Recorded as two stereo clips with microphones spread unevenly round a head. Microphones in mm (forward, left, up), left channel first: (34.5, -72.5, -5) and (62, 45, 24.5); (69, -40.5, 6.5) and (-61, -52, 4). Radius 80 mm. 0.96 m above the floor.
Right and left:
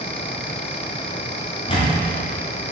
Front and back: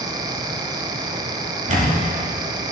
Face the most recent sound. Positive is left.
turn(degrees=-150)